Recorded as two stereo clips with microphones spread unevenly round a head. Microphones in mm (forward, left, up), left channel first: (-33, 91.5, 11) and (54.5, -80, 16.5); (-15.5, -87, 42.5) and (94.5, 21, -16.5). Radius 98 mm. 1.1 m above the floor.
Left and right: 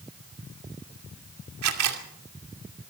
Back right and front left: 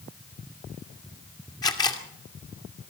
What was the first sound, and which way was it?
A camera shutter, 70° right.